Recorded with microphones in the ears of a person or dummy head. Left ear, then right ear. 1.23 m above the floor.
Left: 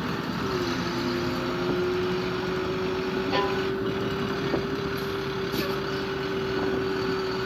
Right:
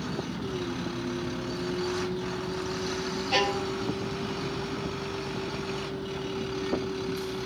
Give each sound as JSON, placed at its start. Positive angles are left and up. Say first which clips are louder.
{"t": 0.0, "sound": "a vehicle", "louder": "left 5 dB", "side_deg": 45}
{"t": 3.3, "sound": "a violin", "louder": "right 1 dB", "side_deg": -45}